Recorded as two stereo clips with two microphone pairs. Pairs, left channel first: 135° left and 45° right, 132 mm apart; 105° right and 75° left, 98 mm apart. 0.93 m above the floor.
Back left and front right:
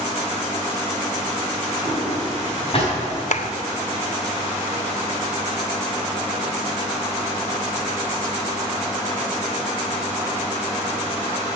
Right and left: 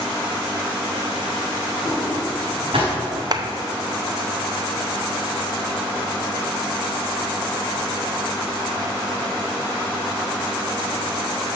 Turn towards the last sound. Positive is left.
turn(degrees=120)